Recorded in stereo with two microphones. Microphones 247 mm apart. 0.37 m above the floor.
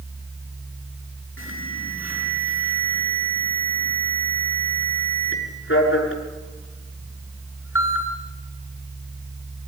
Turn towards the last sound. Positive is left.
turn(degrees=60)  # may be behind; listen again after turning